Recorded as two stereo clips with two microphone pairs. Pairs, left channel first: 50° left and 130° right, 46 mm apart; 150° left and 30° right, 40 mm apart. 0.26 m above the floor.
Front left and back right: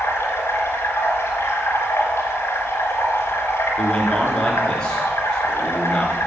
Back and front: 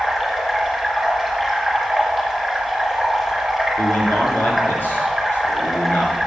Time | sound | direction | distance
0.0 | running water | 60° left | 3 m
3.8 | a man speaking | 125° left | 3.5 m